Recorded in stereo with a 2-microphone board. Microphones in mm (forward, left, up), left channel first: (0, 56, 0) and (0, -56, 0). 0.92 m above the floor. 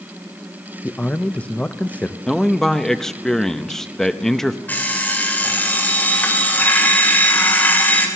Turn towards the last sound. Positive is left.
turn(degrees=15)  # may be behind; listen again after turning